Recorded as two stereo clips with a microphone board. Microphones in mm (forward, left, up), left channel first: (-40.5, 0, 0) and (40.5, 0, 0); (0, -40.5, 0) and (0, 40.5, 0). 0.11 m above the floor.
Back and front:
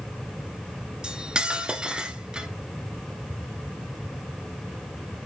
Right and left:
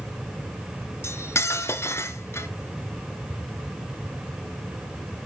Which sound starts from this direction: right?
Cutlery clinking, at 1.0 s.